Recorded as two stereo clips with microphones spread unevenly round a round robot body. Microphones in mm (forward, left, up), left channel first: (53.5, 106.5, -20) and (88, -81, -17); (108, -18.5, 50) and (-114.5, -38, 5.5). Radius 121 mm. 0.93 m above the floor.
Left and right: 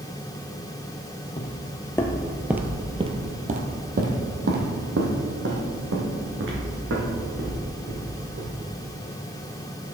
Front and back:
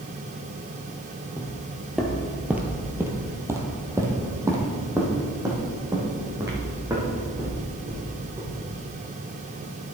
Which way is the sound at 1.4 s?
70° left.